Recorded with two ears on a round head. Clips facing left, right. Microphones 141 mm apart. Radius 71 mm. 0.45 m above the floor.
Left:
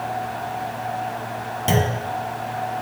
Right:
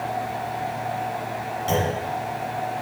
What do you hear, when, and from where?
1.7 s a clunk: 65° left (ahead or behind), 1.8 m